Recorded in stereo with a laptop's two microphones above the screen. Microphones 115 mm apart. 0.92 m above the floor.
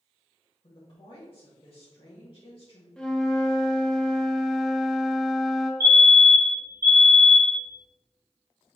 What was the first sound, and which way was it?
A woman speaking, 50° left (ahead or behind).